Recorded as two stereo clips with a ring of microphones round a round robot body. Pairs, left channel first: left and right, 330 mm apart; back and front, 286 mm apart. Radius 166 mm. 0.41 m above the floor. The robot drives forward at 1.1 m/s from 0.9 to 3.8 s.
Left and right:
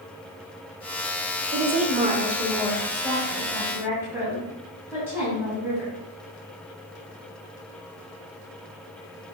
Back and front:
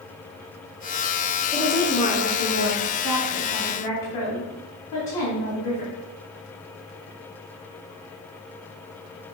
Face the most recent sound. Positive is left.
turn(degrees=-175)